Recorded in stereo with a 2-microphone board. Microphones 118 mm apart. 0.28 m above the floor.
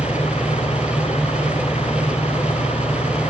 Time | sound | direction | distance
0.0 | an engine running | 60° left (ahead or behind) | ?